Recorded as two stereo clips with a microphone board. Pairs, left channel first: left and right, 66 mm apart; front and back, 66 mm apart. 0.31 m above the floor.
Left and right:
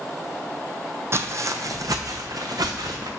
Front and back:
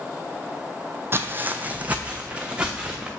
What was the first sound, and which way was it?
Footsteps, 130° right.